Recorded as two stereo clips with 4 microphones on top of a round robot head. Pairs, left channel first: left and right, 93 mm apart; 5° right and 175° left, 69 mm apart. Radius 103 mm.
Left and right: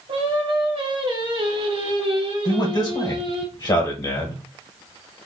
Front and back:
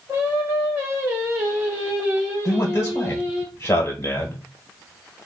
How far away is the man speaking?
About 1.4 m.